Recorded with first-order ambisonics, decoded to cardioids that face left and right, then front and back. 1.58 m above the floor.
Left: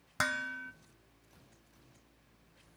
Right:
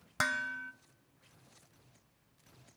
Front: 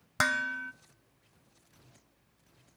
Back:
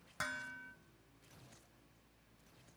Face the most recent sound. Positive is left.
turn(degrees=0)